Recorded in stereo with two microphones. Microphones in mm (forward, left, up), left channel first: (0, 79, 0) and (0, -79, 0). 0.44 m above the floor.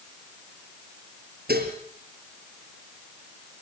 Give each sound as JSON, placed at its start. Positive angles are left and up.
{"t": 1.5, "sound": "dishes clattering", "side_deg": -85, "distance_m": 6.0}